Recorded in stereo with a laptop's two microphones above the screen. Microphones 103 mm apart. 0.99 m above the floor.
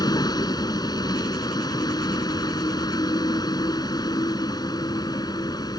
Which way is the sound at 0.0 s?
40° left (ahead or behind).